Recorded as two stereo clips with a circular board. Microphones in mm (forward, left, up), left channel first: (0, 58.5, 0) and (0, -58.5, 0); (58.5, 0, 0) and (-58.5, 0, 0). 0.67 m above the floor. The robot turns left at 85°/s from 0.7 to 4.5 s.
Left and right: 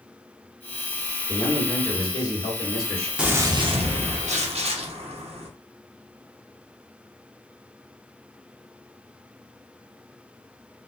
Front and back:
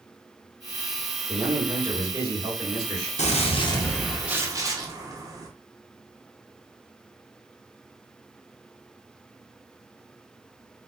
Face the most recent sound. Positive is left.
turn(degrees=-120)